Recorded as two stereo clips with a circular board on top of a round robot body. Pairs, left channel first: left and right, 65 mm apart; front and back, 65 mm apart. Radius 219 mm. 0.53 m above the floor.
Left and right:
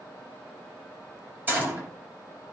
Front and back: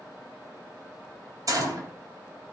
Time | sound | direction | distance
1.5 | a gunshot | 150° right | 3.5 m